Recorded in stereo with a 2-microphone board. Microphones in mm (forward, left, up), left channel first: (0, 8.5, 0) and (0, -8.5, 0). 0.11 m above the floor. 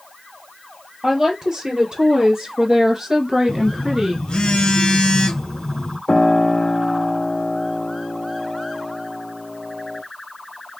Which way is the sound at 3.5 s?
55° left (ahead or behind).